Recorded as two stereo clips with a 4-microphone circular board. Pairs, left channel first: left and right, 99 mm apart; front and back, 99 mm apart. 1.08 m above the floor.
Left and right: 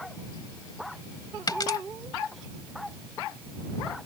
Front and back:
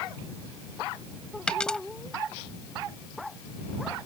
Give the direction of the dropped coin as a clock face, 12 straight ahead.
9 o'clock.